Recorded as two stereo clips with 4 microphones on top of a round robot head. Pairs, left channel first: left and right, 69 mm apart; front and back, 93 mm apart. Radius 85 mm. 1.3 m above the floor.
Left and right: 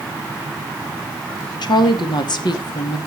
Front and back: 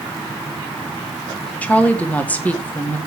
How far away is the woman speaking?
About 2 m.